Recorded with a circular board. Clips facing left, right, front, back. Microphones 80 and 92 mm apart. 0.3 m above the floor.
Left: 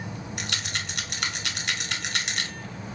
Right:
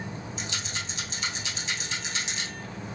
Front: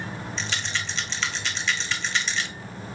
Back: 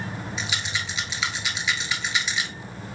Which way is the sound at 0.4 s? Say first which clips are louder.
Left 2 dB, front 1 dB; 95° left.